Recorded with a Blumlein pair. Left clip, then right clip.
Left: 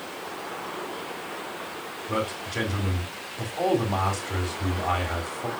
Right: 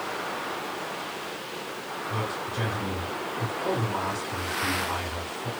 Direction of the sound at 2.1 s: 45° left.